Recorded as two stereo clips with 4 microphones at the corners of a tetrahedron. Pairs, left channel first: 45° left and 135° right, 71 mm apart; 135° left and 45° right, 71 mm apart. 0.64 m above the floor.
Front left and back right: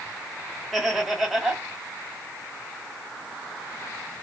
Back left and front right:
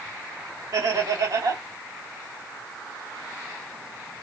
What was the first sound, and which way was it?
Laughter, 45° right.